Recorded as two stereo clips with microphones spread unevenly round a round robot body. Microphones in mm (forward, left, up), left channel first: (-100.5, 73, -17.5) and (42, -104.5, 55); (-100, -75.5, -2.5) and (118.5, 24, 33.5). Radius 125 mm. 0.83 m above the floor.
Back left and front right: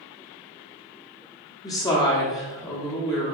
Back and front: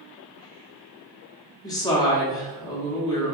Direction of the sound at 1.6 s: 155° left.